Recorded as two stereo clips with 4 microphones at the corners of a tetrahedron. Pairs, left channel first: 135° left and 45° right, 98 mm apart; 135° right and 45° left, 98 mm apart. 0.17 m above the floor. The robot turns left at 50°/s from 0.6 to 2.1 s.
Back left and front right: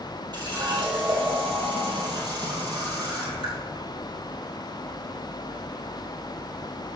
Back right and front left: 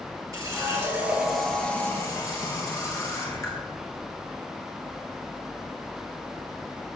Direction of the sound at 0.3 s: 5° right.